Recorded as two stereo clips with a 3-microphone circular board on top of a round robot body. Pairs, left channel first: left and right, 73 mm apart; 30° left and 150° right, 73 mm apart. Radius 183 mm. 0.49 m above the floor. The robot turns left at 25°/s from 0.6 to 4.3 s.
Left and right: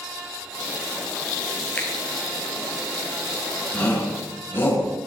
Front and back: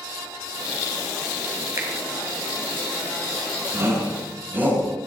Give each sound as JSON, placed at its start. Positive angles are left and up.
{"t": 1.8, "sound": "a finger snap", "azimuth_deg": 155, "distance_m": 3.0}
{"t": 3.7, "sound": "a shout", "azimuth_deg": 160, "distance_m": 8.0}